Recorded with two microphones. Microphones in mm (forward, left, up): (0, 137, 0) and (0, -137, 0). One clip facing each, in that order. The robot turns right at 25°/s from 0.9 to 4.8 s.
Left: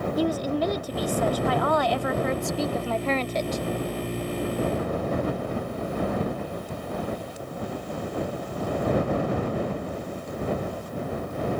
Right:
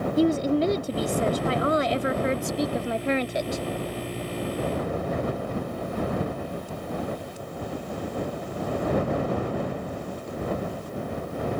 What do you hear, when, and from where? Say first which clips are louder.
0.2 s a woman speaking: right 5 dB; 25° right (ahead or behind); by 3.6 s 10° right (ahead or behind)